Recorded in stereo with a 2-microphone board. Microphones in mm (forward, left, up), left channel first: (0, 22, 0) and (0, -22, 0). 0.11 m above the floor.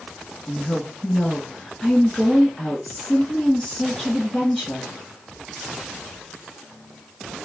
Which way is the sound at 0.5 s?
5° left (ahead or behind).